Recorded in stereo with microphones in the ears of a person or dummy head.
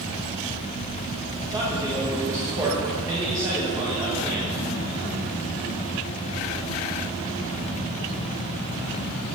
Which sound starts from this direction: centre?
A man speaking, at 1.4 s.